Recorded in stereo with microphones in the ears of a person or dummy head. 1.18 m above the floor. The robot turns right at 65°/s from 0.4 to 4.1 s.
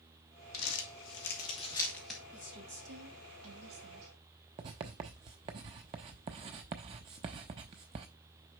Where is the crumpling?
75° left (ahead or behind), 1.8 m; by 2.2 s 5° right (ahead or behind), 1.8 m.